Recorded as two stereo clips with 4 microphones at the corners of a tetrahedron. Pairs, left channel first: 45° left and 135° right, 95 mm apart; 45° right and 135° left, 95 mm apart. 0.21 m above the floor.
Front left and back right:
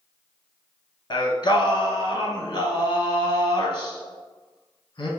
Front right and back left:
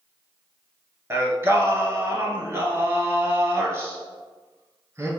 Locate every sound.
1.1 s singing: 75° left, 0.8 m